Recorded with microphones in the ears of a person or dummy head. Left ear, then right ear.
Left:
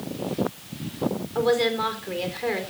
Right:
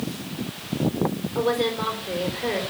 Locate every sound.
1.4 s a woman speaking: 30° left (ahead or behind), 4 m